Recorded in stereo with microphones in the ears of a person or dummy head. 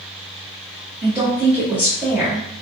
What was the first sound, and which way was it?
A woman speaking, 10° right (ahead or behind).